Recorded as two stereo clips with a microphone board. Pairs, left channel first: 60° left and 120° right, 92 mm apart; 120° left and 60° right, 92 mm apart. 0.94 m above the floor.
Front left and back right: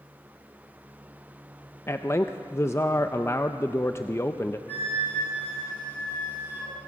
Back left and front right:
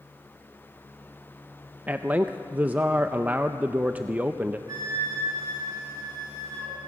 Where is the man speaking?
10° left, 0.6 m.